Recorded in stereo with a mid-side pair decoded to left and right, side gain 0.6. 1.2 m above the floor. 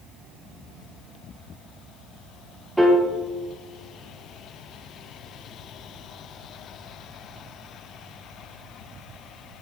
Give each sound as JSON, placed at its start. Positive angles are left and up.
{"t": 2.8, "sound": "a piano", "azimuth_deg": -10, "distance_m": 0.6}